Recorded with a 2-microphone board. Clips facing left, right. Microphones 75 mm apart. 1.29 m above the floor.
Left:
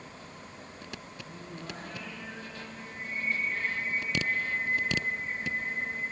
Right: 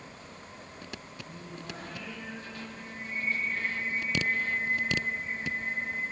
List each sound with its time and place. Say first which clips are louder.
1.2 s singing: left 1 dB; centre (ahead or behind), 9.5 m